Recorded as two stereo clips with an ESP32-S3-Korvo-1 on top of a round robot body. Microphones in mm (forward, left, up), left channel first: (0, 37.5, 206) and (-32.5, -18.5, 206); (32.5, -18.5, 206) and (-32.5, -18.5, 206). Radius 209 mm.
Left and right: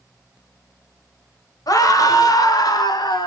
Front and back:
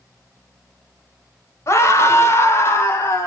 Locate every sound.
1.7 s a scream: 45° left, 2.5 m; by 3.3 s 55° left, 4 m